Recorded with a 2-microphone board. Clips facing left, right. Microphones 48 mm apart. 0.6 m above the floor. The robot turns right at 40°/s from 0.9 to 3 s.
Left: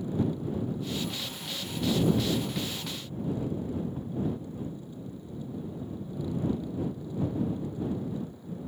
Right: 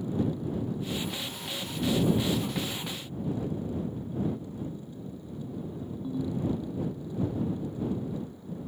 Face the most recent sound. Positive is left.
turn(degrees=-85)